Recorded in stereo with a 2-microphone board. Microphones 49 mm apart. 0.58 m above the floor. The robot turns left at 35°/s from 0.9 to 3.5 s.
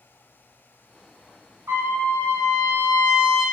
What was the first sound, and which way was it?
A trumpet, 95° right.